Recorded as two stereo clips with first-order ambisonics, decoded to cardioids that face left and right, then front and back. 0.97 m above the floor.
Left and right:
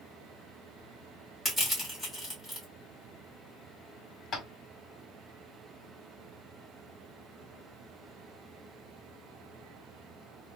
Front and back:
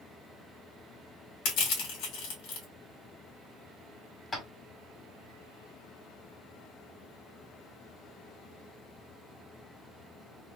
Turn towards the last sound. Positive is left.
turn(degrees=60)